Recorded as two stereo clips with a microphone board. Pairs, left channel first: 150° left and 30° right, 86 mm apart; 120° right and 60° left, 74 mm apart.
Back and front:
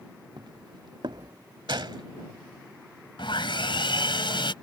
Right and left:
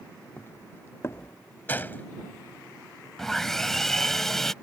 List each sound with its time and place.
0.4 s footsteps: 60° right; by 1.4 s 65° right
1.7 s a gunshot: 55° right
3.2 s sawing: 155° left